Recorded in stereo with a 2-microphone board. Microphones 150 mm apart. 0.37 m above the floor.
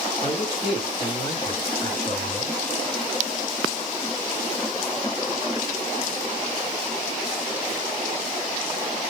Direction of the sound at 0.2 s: 35° left (ahead or behind).